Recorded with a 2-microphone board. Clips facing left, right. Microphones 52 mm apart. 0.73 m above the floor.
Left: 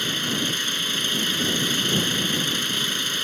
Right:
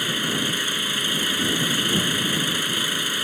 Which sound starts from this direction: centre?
An engine running, at 0.0 s.